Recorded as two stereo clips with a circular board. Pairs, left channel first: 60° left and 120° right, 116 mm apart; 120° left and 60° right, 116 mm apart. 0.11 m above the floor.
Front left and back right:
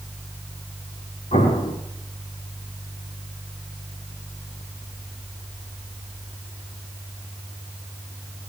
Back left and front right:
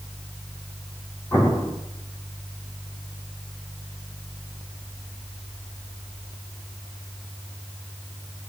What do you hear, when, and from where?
1.3 s an explosion: 55° left, 6 m